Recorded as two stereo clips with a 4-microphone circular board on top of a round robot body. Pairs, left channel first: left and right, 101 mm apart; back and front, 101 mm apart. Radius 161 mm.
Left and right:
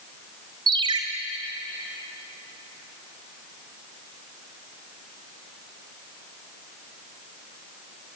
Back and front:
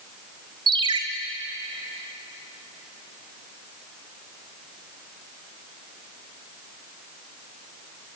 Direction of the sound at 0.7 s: 45° right.